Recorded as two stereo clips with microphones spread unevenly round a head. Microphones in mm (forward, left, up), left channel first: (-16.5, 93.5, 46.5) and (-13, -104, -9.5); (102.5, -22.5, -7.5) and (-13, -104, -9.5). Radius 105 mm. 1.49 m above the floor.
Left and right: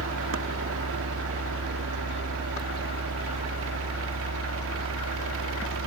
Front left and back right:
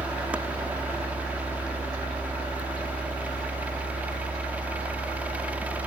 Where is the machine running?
65° right.